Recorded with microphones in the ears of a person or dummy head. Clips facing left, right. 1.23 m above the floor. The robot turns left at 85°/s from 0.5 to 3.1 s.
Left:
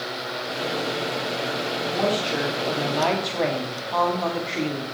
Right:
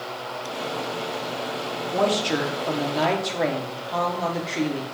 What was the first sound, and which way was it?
A woman speaking, 75° right.